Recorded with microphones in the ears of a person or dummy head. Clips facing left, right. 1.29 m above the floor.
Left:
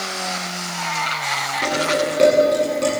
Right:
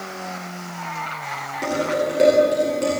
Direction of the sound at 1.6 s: 10° right (ahead or behind).